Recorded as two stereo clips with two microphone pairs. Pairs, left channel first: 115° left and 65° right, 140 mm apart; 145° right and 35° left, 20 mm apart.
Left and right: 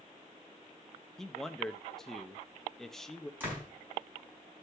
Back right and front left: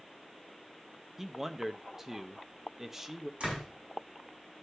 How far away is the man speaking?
About 0.7 m.